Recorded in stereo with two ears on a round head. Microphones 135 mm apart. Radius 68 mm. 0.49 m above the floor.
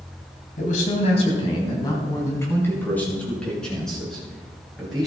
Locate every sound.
0.6 s a man speaking: 55° left (ahead or behind), 3 m; by 5.1 s 5° right (ahead or behind), 7.5 m